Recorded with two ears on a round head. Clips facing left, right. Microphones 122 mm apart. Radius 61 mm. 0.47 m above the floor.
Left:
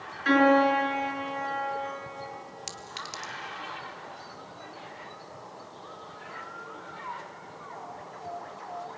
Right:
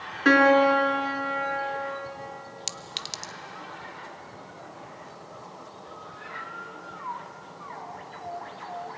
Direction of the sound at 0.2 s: 65° right (ahead or behind).